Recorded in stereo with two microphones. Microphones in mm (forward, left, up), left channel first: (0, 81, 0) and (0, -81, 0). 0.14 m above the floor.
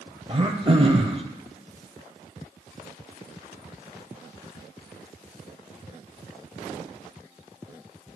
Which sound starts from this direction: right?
Throat clearing, at 0.3 s.